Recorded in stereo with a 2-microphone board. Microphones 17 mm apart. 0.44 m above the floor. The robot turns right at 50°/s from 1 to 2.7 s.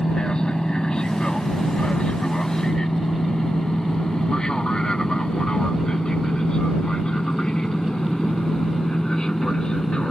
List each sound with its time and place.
0.0 s an aircraft: 50° left (ahead or behind); by 10.1 s 45° left (ahead or behind)